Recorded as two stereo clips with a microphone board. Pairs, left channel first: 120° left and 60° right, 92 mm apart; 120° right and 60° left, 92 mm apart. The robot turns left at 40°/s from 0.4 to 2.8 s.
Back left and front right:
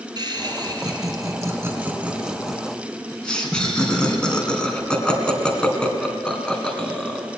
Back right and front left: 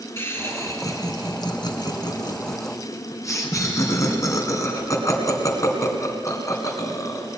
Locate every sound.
0.2 s laughter: 65° right, 2.5 m; by 7.2 s 160° right, 2.5 m